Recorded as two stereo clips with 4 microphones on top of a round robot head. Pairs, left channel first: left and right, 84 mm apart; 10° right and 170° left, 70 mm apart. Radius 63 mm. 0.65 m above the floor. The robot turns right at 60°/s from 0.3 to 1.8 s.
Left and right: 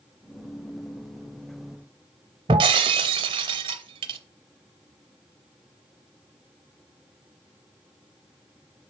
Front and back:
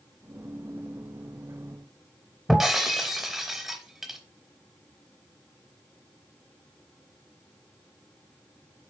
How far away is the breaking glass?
About 0.6 m.